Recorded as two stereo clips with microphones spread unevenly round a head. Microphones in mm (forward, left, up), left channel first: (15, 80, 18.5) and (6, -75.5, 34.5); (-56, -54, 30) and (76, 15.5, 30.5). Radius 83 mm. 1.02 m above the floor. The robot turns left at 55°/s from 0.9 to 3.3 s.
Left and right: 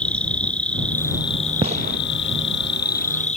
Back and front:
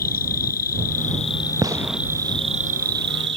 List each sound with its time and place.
0.0 s an insect: 170° left; by 3.4 s 40° left
1.6 s a gunshot: 40° right; by 2.0 s 60° right